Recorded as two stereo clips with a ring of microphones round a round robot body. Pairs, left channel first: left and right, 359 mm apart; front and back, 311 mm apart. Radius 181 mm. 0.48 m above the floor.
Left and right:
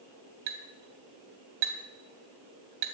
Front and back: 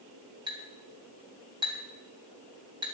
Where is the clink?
100° right, 2.5 m.